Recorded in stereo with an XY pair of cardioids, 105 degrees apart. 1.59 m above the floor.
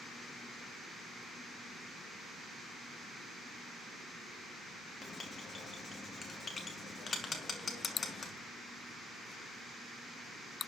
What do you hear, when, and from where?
5.0 s writing: 35° left, 3 m